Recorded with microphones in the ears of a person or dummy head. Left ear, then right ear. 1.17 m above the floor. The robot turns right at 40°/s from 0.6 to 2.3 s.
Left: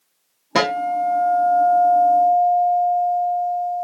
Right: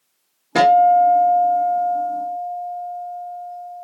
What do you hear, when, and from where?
0.6 s a guitar: 10° left, 0.7 m; by 3.9 s 75° left, 0.7 m